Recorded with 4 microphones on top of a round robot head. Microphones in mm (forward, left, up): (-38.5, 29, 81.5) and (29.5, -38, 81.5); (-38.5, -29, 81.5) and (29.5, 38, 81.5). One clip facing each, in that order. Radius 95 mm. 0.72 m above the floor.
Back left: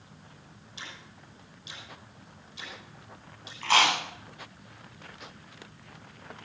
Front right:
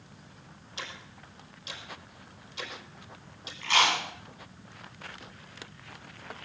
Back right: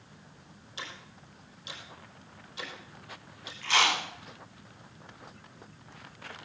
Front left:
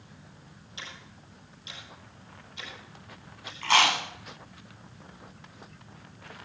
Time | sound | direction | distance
0.8 | ticking | 80° right | 5 m
3.6 | chewing | 90° left | 7 m